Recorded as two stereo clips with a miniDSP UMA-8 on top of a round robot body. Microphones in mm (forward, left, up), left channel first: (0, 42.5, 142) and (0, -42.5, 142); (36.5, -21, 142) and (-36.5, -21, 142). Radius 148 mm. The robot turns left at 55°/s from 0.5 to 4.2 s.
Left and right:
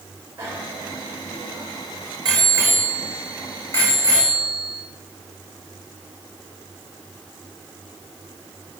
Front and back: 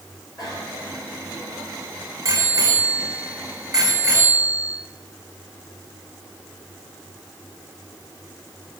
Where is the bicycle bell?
30° right, 8.5 m; by 4.8 s 125° left, 8.5 m.